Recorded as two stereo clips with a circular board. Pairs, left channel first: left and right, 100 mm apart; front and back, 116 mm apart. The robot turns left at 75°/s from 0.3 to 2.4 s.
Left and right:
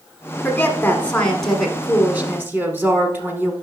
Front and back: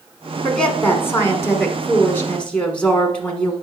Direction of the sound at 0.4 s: 80° left.